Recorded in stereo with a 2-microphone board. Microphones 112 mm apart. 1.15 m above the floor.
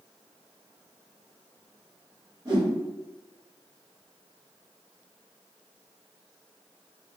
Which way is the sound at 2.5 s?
35° right (ahead or behind).